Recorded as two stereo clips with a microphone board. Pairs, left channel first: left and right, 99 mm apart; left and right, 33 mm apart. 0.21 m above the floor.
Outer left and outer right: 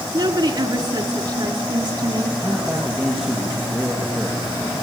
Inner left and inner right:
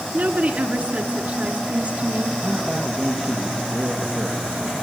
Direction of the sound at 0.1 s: 50° right (ahead or behind).